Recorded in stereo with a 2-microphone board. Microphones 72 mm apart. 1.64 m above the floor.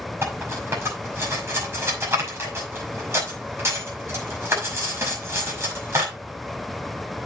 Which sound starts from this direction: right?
Cutlery clinking, at 0.2 s.